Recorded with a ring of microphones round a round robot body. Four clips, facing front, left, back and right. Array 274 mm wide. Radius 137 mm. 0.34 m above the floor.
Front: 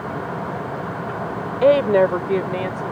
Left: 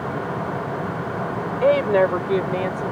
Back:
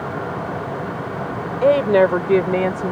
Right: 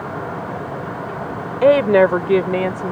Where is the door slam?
No door slam in this recording.